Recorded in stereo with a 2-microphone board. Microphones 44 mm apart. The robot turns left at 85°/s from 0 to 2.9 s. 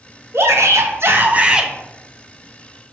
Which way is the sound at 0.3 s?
60° right.